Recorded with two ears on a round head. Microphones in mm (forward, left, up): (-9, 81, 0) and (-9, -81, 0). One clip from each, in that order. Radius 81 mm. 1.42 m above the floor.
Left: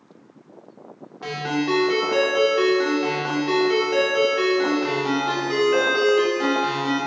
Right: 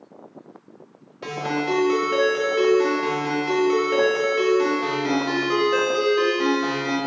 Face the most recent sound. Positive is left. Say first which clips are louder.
# even
turn(degrees=-15)  # may be behind; listen again after turning